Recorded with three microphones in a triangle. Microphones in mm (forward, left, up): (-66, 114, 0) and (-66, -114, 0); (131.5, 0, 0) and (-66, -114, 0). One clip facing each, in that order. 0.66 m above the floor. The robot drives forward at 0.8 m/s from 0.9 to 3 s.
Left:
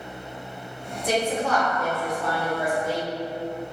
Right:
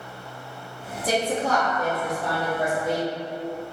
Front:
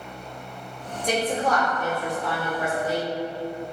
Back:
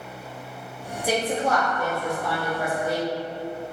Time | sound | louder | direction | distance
1.0 | a woman speaking | even, even | 65° right | 1.1 m